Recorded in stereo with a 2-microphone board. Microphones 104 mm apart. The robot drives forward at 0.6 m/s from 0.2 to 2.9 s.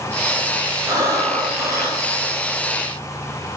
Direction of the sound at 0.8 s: 30° right (ahead or behind).